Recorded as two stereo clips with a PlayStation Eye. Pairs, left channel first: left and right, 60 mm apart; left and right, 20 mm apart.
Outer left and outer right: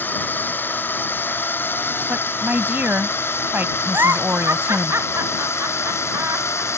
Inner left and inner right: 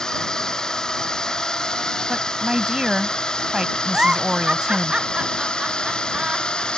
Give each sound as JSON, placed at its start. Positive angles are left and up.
{"t": 0.0, "sound": "a drone", "side_deg": 35}
{"t": 2.1, "sound": "a woman speaking", "side_deg": -35}
{"t": 3.9, "sound": "a giggle", "side_deg": -45}